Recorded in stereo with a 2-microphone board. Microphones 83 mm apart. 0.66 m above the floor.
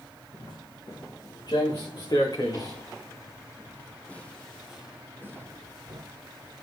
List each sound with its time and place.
0.3 s footsteps: 65° left (ahead or behind), 4 m; by 6.0 s 45° right (ahead or behind), 1.5 m